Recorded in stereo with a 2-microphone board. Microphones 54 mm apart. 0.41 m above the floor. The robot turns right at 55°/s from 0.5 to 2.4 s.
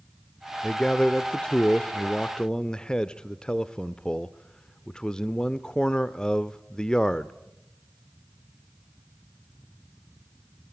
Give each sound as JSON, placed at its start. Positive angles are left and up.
{"t": 0.6, "sound": "a man speaking", "side_deg": 10, "distance_m": 0.8}